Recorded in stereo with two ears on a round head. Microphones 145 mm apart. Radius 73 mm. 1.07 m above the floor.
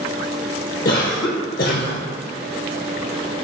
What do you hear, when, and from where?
0.8 s a cough: 60° left (ahead or behind), 0.7 m